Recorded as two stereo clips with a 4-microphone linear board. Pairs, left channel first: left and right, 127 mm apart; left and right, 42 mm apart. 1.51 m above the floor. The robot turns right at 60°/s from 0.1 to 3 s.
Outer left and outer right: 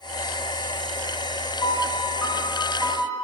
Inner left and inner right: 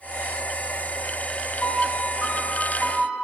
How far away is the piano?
About 0.8 m.